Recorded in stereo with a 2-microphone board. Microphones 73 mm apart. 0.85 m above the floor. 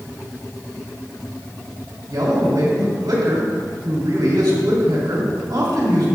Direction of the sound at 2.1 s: 75° right (ahead or behind).